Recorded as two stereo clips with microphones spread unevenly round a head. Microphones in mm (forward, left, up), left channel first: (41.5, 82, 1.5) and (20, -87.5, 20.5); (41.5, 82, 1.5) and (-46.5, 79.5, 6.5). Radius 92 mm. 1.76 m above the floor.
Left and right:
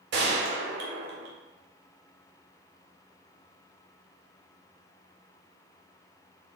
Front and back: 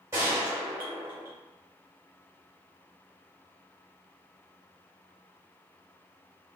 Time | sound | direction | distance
0.1 | a gunshot | 110° right | 0.7 m